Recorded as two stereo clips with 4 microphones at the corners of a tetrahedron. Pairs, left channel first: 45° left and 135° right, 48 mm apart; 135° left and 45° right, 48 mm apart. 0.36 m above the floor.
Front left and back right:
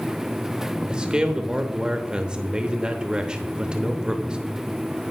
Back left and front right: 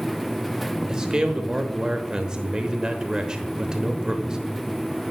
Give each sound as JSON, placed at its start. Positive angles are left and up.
{"t": 0.9, "sound": "a man speaking", "azimuth_deg": -95, "distance_m": 0.9}